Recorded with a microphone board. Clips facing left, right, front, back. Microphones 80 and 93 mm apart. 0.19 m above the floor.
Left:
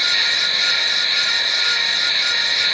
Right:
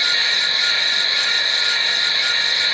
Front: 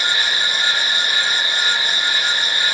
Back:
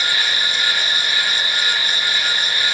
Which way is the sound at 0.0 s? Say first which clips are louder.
Even, front 1 dB; 40° right.